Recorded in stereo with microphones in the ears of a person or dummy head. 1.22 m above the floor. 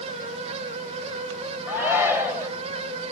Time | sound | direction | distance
1.7 | a shout | 10° right (ahead or behind) | 1.5 m